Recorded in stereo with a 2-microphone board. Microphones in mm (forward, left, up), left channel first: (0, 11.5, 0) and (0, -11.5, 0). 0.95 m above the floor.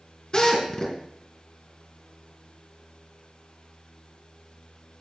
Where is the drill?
30° left (ahead or behind), 3.5 m.